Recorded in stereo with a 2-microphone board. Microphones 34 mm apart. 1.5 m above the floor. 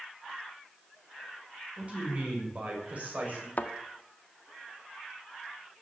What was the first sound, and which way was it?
A man speaking, 40° right (ahead or behind).